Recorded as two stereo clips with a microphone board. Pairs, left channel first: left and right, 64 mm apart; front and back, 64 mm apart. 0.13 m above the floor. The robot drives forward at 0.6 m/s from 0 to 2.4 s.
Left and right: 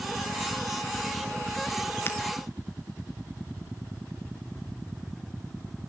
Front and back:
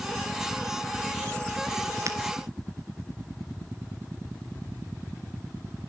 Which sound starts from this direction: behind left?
Breaking glass, at 2.1 s.